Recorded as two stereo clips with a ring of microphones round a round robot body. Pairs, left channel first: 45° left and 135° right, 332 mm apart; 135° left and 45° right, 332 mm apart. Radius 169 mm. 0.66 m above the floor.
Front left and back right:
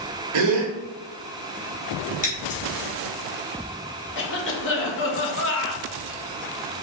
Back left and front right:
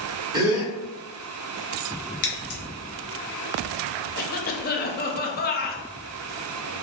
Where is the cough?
85° left, 0.8 m.